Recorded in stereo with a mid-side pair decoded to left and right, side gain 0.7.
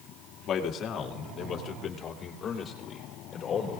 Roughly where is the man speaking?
Ahead left.